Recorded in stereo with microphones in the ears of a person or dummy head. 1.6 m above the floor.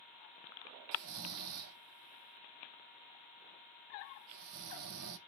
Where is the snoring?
70° right (ahead or behind), 0.6 m.